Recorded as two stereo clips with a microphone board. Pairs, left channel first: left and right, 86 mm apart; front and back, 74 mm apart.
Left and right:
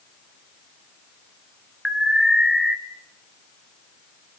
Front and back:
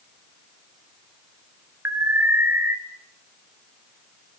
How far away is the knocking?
I don't hear knocking.